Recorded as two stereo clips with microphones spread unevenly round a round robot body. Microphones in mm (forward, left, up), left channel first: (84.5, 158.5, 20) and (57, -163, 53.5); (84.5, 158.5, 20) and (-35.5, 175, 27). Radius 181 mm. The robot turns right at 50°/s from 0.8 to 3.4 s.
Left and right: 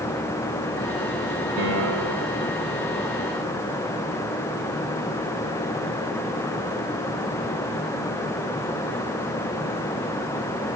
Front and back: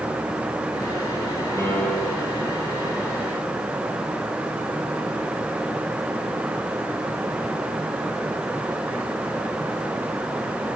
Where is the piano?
110° right, 8 m; by 2.3 s 75° right, 8 m.